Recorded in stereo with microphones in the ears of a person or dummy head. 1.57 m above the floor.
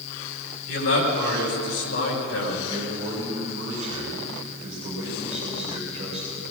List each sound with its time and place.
0.7 s a man speaking: 85° left, 7.5 m
2.7 s a man speaking: 35° right (ahead or behind), 6.5 m